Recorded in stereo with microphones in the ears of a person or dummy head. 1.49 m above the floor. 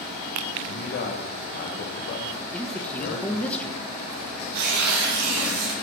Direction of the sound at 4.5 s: 60° right (ahead or behind).